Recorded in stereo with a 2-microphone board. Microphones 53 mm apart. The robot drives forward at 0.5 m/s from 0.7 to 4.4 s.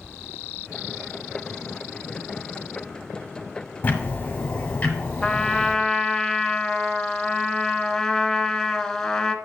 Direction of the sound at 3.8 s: 30° left (ahead or behind).